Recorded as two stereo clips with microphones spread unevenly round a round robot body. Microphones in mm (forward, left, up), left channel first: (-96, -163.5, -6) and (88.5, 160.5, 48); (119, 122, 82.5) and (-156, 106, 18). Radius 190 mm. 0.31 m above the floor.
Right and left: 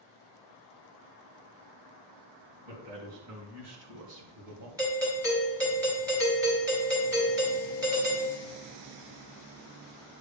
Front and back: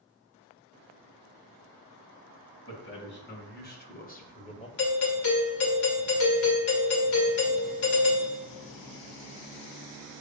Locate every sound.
2.6 s a man speaking: 55° left, 3 m; by 4.7 s 80° left, 1.8 m
4.8 s a doorbell: 25° right, 2.5 m